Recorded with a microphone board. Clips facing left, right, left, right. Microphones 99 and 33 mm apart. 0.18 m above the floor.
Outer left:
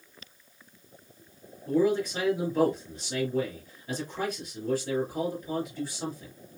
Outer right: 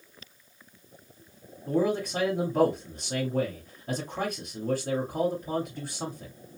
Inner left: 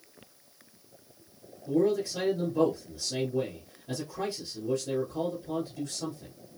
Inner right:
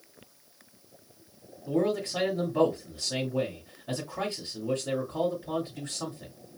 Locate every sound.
1.7 s a man speaking: 45° right (ahead or behind), 2.5 m